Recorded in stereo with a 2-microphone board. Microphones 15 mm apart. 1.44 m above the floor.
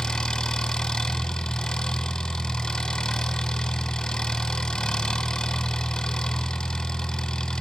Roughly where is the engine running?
Left.